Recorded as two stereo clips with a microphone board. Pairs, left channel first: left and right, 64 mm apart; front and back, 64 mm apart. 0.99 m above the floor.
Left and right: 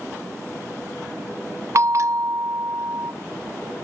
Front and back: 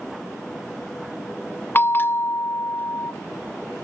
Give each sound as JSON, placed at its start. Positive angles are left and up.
{"t": 1.8, "sound": "a bell", "azimuth_deg": -55, "distance_m": 0.8}